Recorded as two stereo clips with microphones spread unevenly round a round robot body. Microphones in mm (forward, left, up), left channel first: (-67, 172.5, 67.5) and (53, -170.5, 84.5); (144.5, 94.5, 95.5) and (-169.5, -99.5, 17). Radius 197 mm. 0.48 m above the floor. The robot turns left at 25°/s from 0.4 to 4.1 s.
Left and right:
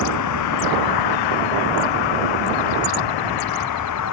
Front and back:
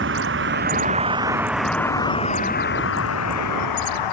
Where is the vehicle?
150° left; by 4.1 s 60° left.